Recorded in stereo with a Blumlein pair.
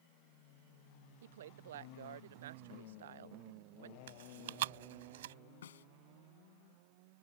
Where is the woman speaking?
60° right.